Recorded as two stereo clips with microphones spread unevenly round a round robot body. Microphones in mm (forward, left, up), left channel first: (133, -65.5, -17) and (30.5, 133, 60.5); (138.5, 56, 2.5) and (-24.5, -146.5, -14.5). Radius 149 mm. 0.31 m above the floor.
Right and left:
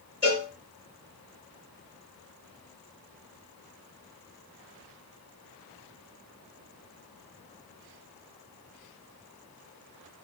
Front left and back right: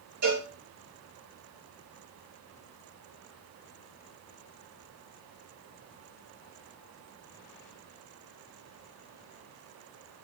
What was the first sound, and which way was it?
A cowbell, 170° right.